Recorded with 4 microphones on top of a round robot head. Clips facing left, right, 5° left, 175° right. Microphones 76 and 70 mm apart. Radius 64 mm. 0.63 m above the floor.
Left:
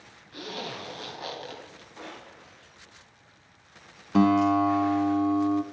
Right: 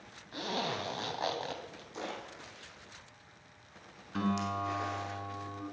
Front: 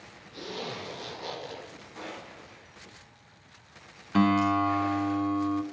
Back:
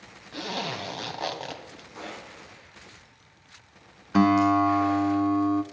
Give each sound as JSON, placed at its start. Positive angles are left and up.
{"t": 0.3, "sound": "a zipper", "azimuth_deg": -155, "distance_m": 2.0}
{"t": 1.9, "sound": "a splash", "azimuth_deg": -95, "distance_m": 5.5}
{"t": 4.1, "sound": "a guitar", "azimuth_deg": 110, "distance_m": 0.8}